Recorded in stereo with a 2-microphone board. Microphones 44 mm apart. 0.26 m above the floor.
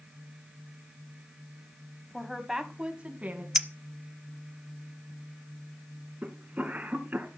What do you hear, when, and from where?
2.1 s a woman speaking: 5° left (ahead or behind), 1.6 m; by 3.5 s 35° right (ahead or behind), 2.5 m
3.5 s a clink: 15° right (ahead or behind), 0.6 m
6.2 s a cough: 30° right (ahead or behind), 2.5 m